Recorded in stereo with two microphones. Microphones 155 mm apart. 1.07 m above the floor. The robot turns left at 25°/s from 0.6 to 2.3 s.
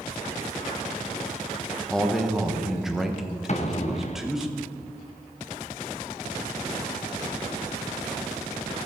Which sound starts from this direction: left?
An explosion, at 3.5 s.